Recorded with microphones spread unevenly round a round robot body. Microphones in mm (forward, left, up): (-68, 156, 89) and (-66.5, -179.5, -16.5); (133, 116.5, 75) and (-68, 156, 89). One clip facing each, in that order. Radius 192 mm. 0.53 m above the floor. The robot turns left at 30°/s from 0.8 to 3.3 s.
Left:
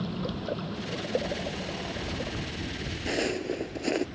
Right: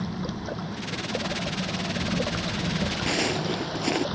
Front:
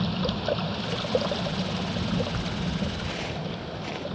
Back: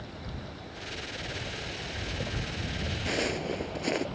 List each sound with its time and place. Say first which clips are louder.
0.0 s running water: right 1 dB, front 14 dB; 5° right; by 4.2 s 80° right
3.1 s footsteps: left 1 dB, back 3 dB; 170° right; by 4.0 s 175° right